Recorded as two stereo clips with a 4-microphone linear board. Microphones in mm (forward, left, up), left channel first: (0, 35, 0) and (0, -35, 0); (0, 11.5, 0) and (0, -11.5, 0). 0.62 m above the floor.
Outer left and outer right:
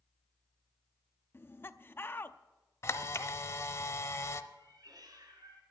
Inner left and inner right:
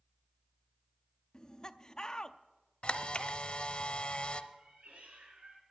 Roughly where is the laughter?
Left.